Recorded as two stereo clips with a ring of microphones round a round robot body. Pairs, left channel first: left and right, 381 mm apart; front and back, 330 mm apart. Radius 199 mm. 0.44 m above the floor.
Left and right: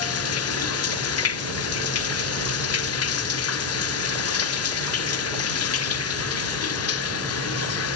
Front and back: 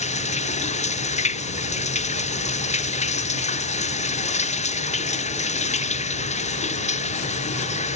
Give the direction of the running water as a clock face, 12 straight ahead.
10 o'clock.